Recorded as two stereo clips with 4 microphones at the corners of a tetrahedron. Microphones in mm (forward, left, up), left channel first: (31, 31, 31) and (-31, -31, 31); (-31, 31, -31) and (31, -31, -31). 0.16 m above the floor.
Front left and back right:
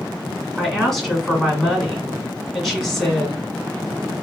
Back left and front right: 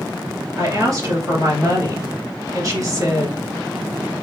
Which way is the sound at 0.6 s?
40° right.